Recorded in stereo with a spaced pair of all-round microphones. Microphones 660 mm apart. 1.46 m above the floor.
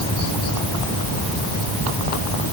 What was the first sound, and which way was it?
Only background noise.